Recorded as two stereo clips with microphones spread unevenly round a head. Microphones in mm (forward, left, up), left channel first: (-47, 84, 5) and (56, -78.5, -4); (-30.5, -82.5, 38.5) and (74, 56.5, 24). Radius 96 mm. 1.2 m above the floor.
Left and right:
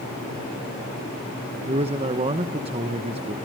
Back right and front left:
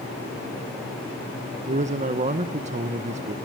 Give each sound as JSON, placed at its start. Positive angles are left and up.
{"t": 1.7, "sound": "a man speaking", "azimuth_deg": 5, "distance_m": 0.9}